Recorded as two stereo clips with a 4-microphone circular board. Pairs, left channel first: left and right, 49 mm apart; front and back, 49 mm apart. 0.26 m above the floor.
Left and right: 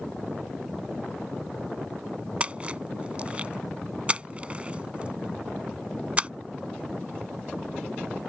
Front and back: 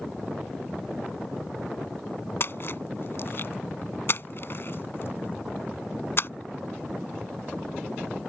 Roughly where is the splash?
Ahead right.